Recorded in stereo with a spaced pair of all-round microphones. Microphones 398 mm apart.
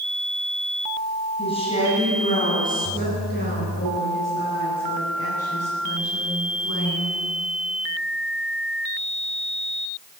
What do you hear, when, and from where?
1.4 s a woman speaking: 15° left (ahead or behind), 9.5 m; by 7.2 s 40° left (ahead or behind), 12 m